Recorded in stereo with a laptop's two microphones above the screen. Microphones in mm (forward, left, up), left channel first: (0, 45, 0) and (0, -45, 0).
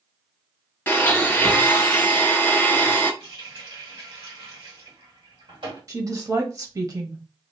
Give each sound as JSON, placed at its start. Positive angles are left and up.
{"t": 0.9, "sound": "a blender", "side_deg": 20, "distance_m": 0.8}
{"t": 3.2, "sound": "a running tap", "side_deg": -80, "distance_m": 1.8}
{"t": 5.9, "sound": "a woman speaking", "side_deg": -40, "distance_m": 1.1}